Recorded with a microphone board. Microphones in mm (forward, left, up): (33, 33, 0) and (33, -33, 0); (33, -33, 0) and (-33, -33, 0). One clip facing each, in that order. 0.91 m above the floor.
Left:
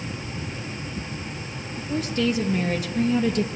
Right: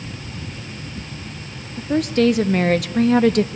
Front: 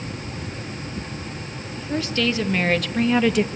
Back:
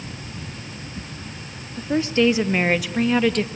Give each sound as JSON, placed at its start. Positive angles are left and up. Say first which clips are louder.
{"t": 1.8, "sound": "a woman speaking", "louder": "right 8 dB, back 5 dB", "azimuth_deg": -115, "distance_m": 1.4}